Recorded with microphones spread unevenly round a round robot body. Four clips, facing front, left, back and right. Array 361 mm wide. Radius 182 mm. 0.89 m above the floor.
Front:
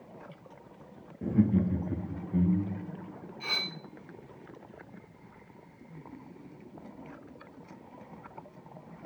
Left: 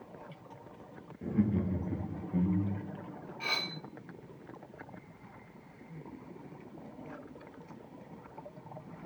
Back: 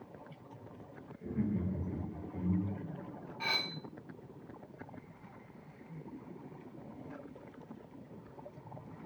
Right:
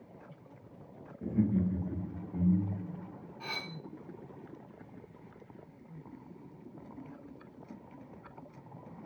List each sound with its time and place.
1.2 s laughter: 10° right, 1.6 m; by 3.0 s 35° left, 2.5 m
3.4 s cutlery clinking: 160° left, 3.5 m